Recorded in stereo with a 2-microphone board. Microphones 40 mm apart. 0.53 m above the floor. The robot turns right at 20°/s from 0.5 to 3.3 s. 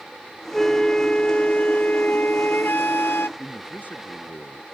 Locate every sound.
0.5 s a flute: 10° left; by 3.3 s 65° left
3.4 s a man speaking: 45° left (ahead or behind)